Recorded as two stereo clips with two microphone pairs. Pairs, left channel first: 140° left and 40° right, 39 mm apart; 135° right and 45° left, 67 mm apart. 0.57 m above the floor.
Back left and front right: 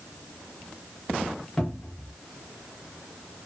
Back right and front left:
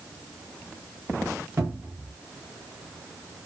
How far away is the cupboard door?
About 1.1 m.